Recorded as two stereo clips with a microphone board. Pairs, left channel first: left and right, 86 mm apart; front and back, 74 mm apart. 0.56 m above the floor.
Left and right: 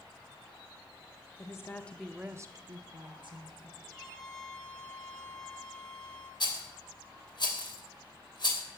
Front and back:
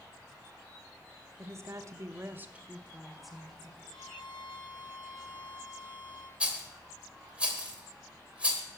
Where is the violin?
5° left, 3.5 m.